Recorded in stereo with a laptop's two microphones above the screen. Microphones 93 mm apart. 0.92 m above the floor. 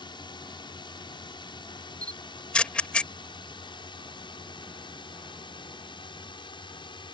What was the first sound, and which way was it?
A drone, 55° left (ahead or behind).